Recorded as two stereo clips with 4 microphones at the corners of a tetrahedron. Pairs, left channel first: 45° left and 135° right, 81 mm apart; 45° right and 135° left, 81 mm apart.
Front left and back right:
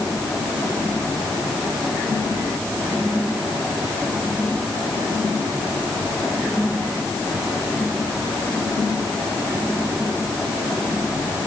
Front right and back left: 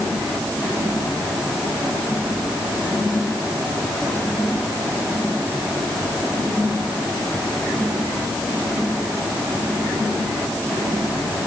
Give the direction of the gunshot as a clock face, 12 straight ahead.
I don't hear a gunshot.